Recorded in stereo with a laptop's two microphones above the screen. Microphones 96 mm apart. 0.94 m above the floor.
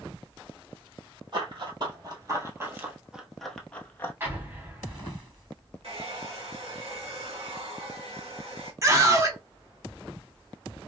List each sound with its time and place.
1.3 s running footsteps: 50° right (ahead or behind), 1.4 m; by 4.1 s 25° left (ahead or behind), 1.0 m
4.2 s an explosion: 20° right (ahead or behind), 1.1 m
5.8 s a hair dryer: 65° right (ahead or behind), 1.6 m
8.8 s a scream: 30° right (ahead or behind), 1.3 m